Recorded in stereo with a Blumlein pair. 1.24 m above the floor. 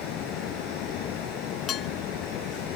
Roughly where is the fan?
Ahead left.